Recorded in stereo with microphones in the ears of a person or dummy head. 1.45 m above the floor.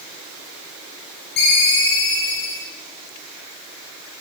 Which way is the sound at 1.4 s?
55° left (ahead or behind).